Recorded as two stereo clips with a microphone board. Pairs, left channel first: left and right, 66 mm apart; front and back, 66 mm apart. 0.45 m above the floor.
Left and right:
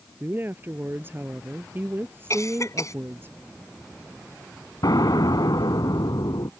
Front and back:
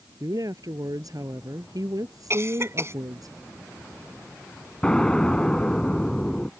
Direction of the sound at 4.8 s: 75° left.